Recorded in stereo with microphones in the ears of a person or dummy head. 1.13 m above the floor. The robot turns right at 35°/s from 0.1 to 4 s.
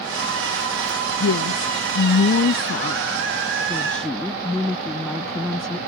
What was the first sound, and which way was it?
A woman speaking, 80° left.